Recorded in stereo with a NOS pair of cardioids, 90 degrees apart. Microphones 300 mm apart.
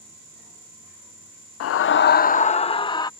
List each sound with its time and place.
1.6 s a scream: 55° left; by 3.1 s 15° left